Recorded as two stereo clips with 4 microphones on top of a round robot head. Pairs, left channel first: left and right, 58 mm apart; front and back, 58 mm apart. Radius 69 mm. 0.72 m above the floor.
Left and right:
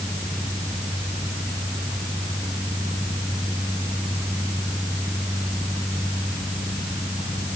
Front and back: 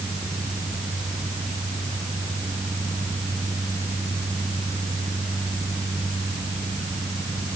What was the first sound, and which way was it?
Only background noise.